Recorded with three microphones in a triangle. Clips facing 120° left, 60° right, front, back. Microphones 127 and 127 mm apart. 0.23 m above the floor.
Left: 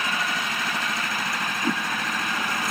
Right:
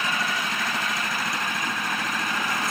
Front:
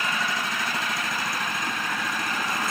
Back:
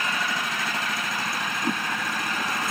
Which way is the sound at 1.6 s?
140° left.